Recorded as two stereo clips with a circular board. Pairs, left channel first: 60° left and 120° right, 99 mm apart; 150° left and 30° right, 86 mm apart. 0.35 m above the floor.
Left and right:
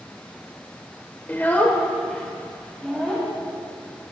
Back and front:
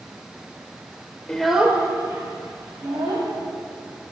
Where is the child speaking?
90° left, 1.0 m; by 3.3 s 25° right, 2.5 m.